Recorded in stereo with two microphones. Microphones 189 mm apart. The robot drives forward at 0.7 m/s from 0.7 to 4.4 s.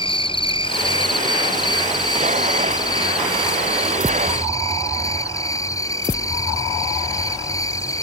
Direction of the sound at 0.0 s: 30° left (ahead or behind).